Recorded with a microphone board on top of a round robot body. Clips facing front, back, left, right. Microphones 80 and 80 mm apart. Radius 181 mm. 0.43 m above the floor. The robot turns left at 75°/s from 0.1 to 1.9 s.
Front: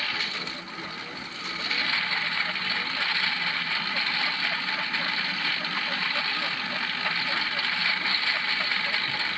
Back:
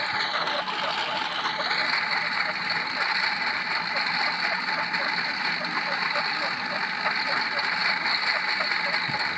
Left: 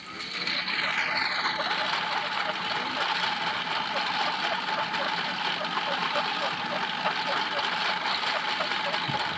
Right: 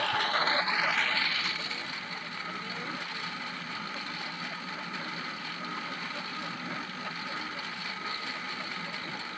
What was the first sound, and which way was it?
A lawn mower, 115° right.